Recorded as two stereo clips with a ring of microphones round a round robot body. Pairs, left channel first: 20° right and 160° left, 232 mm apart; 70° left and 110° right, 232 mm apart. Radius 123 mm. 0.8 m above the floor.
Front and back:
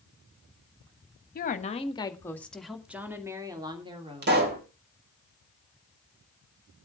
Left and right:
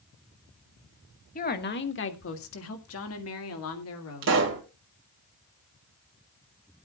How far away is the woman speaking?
About 1.5 m.